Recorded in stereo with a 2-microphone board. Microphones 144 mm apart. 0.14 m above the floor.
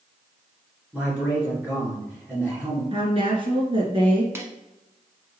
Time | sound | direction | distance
0.9 | a man speaking | 10° right (ahead or behind) | 1.8 m
2.9 | a woman speaking | 35° right (ahead or behind) | 1.5 m
4.3 | a snare drum | 15° right (ahead or behind) | 1.0 m